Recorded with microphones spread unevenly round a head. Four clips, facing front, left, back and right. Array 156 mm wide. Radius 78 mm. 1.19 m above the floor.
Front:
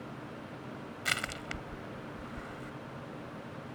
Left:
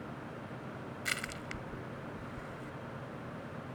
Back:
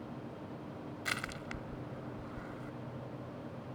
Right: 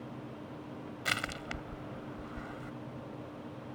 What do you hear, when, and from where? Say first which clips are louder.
1.1 s crushing: right 5 dB, front 4 dB; 55° right